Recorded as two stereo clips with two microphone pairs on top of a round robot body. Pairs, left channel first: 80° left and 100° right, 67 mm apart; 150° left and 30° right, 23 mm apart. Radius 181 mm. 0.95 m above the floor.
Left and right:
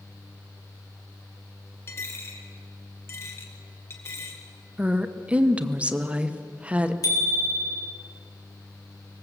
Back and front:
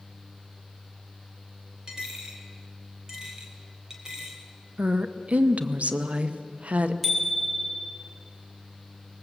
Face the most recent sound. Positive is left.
turn(degrees=55)